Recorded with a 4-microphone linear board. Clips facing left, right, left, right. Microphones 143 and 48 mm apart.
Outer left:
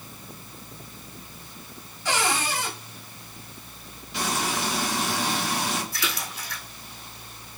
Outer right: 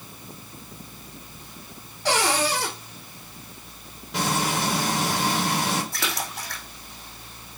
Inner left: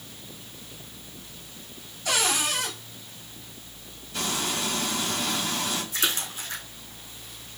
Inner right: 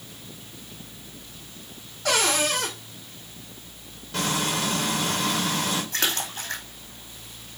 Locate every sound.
2.0 s a cupboard door: 75° right (ahead or behind), 4 m
4.1 s frying: 80° right, 5 m
5.9 s a splash: 65° right (ahead or behind), 3.5 m